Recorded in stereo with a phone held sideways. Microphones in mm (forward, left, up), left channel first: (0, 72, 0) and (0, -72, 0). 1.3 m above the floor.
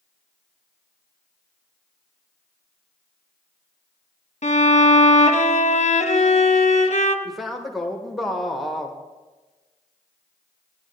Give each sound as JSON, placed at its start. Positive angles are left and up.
{"t": 4.4, "sound": "a violin", "side_deg": 50, "distance_m": 0.8}
{"t": 7.2, "sound": "a man speaking", "side_deg": 0, "distance_m": 0.9}